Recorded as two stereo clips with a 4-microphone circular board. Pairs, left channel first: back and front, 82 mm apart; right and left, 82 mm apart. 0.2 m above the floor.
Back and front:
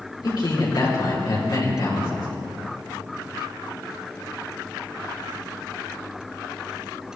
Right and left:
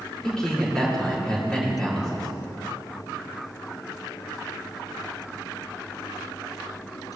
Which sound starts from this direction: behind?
A man speaking, at 0.2 s.